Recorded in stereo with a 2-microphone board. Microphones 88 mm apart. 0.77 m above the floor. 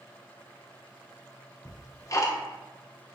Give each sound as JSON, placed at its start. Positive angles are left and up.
{"t": 1.6, "sound": "ticking", "side_deg": 35, "distance_m": 0.6}